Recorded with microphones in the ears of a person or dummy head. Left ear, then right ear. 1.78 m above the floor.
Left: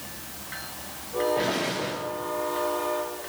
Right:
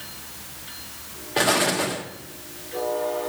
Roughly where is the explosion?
Right.